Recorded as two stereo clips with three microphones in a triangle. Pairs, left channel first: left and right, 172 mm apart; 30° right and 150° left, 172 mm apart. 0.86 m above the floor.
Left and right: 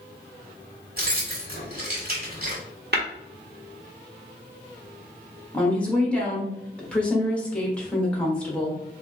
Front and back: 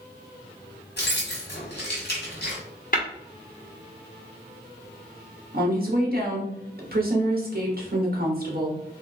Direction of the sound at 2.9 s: 65° right.